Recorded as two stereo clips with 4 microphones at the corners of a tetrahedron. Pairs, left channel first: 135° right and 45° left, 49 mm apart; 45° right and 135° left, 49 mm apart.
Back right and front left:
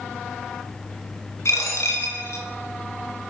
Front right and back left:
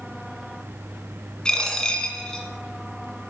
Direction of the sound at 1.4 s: 115° right.